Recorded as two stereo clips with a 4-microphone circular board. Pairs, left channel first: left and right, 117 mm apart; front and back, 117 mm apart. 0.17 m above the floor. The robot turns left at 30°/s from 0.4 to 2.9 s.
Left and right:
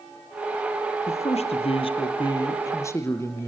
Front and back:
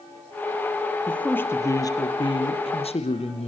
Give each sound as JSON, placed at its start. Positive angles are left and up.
{"t": 1.1, "sound": "a man speaking", "azimuth_deg": 80, "distance_m": 3.5}